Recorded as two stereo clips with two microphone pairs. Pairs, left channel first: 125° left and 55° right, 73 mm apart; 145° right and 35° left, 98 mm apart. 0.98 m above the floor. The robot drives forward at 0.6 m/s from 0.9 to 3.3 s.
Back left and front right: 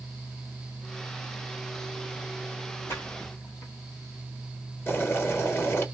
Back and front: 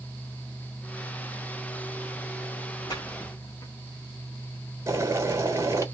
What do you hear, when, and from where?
2.9 s a splash: 170° left, 1.6 m
4.9 s boiling: 85° left, 1.1 m